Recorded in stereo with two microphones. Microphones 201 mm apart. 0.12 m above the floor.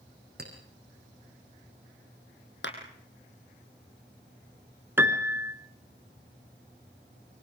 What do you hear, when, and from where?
0.4 s a clink: 55° right (ahead or behind), 4.5 m
2.6 s a clap: 65° left (ahead or behind), 4 m
5.0 s a piano: 10° right (ahead or behind), 1.3 m